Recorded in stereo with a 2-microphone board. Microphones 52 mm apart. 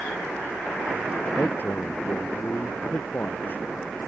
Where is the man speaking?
35° left (ahead or behind); by 3.7 s 40° left (ahead or behind).